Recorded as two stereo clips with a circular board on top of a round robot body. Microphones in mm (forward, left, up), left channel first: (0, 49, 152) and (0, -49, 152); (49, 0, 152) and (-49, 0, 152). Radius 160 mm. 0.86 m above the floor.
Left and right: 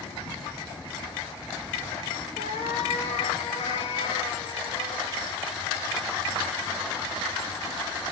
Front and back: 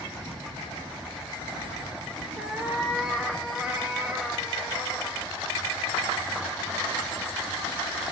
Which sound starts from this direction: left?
A cat meowing, at 2.4 s.